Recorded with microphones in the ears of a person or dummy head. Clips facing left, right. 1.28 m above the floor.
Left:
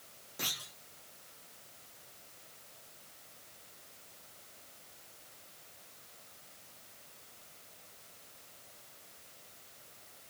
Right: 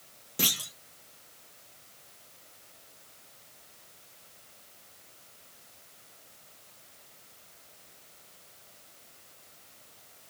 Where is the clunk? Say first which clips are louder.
Right 10 dB; 50° right (ahead or behind), 1.0 m.